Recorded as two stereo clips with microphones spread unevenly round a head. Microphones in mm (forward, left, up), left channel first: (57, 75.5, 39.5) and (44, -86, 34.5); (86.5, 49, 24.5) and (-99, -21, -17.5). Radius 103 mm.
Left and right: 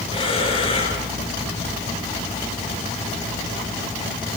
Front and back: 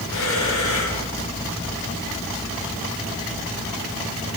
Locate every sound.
0.1 s breathing: 30° left, 9.5 m